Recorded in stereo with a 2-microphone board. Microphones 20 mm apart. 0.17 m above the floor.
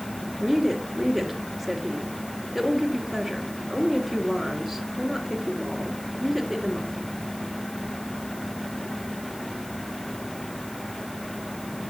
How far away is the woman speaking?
About 3 m.